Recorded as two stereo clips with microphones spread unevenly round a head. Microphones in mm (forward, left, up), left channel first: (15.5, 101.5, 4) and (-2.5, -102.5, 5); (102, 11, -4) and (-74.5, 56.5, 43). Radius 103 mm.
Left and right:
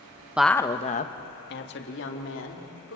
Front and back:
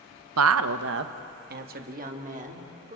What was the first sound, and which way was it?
A woman speaking, straight behind.